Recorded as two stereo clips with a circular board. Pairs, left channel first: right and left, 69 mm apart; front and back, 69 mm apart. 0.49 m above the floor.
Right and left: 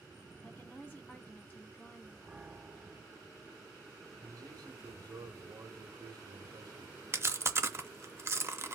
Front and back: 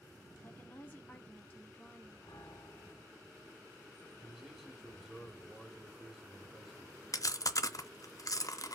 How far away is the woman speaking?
About 1.2 m.